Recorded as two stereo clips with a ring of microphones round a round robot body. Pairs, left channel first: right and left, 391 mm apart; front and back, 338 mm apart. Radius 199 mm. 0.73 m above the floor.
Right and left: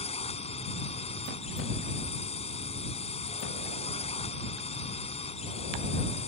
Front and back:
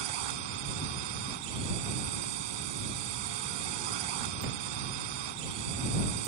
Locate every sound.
0.0 s a drone: 165° right